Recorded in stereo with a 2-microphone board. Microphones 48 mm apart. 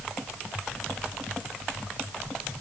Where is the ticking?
No ticking in this recording.